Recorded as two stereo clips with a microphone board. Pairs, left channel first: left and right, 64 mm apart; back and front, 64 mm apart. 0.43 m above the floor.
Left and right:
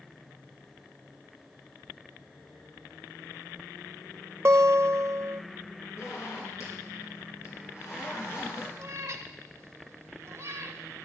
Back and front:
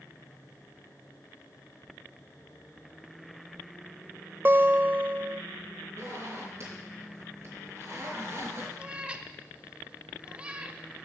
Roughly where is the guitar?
Ahead right.